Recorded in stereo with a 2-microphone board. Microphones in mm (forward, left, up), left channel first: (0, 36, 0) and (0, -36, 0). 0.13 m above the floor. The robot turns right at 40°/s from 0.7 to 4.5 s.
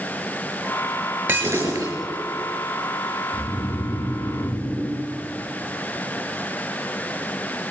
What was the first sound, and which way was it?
Breaking glass, 20° right (ahead or behind).